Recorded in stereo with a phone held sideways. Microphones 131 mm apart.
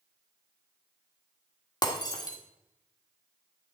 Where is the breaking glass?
30° left (ahead or behind), 1.6 m.